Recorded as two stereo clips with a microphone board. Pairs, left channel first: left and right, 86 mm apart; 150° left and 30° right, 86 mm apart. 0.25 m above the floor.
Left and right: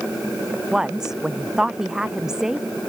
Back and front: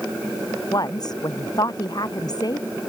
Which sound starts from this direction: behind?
A woman speaking, at 0.7 s.